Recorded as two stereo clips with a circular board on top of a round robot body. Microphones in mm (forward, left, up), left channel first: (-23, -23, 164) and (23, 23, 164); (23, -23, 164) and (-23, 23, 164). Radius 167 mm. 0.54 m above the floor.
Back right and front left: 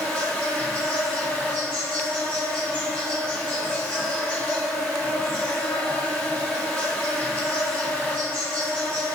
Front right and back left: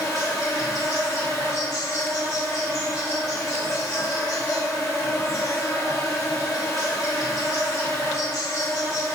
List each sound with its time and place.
0.0 s an insect: 65° right, 2.0 m